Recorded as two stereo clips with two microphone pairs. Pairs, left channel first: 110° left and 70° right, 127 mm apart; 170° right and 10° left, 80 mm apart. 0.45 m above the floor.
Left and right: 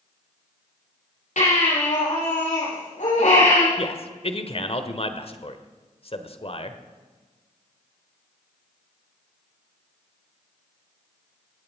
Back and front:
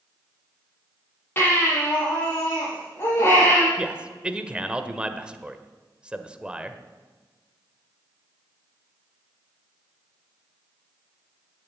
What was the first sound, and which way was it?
A baby crying, 125° left.